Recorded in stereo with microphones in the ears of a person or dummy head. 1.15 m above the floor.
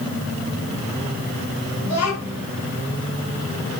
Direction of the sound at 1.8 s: 70° left (ahead or behind).